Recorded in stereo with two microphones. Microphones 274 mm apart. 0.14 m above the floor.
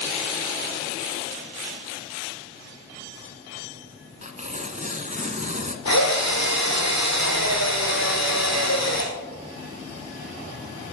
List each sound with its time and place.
4.2 s tearing paper: 25° right (ahead or behind), 1.0 m
5.8 s a drill: 75° left (ahead or behind), 2.5 m